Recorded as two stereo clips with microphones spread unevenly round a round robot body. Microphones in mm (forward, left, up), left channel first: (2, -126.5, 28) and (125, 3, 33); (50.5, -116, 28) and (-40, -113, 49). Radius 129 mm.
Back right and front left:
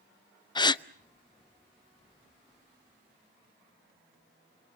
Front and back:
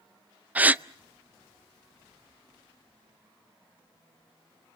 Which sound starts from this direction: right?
A gasp, at 0.6 s.